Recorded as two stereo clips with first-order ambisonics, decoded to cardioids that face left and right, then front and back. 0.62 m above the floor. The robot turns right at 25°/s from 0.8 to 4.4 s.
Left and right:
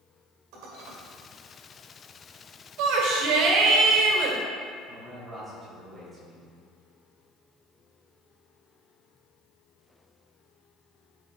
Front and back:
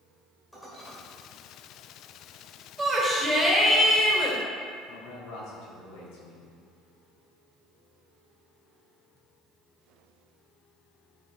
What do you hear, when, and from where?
0.5 s dishes clattering: 90° right, 1.7 m; by 1.0 s 85° right, 1.7 m
2.8 s a shout: 100° right, 2 m; by 4.4 s 60° right, 2 m
4.9 s a man speaking: straight ahead, 3.5 m